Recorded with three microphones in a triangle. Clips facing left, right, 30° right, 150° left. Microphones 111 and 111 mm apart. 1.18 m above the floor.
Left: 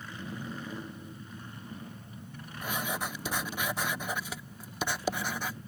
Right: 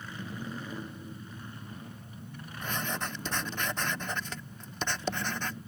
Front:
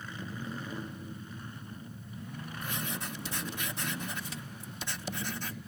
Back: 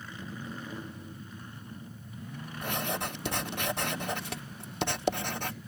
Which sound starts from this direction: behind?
Writing, at 2.6 s.